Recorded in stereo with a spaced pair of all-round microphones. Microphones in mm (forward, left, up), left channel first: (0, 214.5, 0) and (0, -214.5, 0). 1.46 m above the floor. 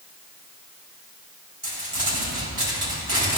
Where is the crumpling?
65° right (ahead or behind), 3 m.